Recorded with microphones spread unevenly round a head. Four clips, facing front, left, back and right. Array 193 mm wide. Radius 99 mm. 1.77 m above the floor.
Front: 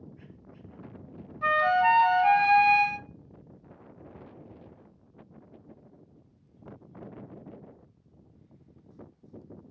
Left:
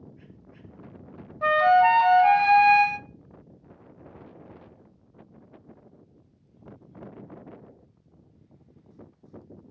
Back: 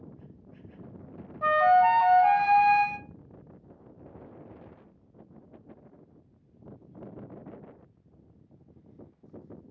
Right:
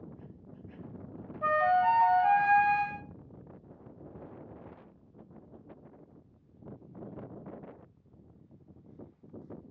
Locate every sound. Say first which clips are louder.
1.4 s a flute: left 7 dB, back 3 dB; 85° left, 0.6 m